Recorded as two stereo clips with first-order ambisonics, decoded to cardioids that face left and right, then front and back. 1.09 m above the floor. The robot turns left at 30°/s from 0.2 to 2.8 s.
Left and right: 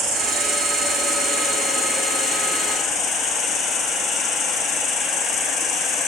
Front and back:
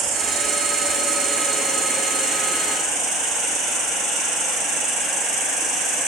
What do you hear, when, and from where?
0.0 s an insect: 140° right, 3 m; by 6.1 s 140° left, 3 m